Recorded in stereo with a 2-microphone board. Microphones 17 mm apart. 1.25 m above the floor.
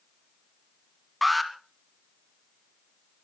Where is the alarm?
Centre (ahead or behind), 2.5 m.